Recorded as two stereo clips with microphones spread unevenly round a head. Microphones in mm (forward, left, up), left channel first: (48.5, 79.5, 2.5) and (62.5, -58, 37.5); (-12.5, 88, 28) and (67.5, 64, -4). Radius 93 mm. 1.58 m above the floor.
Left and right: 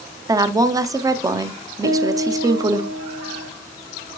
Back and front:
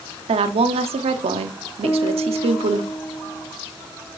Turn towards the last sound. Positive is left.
turn(degrees=-115)